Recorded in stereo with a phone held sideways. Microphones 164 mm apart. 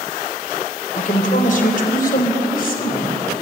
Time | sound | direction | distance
0.9 | a woman speaking | 50° left (ahead or behind) | 4 m